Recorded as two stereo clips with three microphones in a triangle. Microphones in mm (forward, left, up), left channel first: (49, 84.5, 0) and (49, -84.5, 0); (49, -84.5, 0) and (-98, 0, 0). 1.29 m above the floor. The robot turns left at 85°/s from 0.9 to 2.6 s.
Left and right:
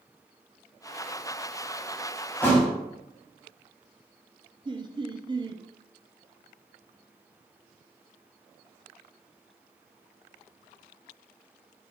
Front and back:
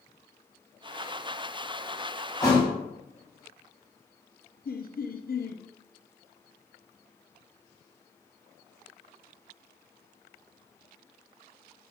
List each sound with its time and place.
2.4 s a thud: 30° left, 1.4 m; by 2.7 s 10° left, 1.4 m
4.7 s laughter: 30° right, 0.6 m